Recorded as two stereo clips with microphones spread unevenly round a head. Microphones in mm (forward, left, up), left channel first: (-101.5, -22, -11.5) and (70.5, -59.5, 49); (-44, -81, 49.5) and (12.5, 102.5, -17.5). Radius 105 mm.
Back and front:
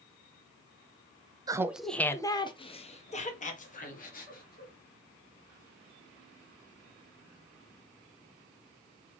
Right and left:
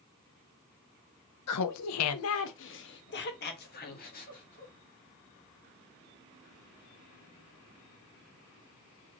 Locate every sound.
1.5 s laughter: 85° right, 0.7 m; by 4.7 s 155° right, 2.5 m